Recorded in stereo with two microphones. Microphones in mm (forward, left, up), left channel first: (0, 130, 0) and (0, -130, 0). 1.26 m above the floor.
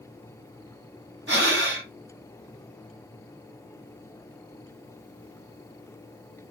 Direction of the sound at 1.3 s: 45° right (ahead or behind).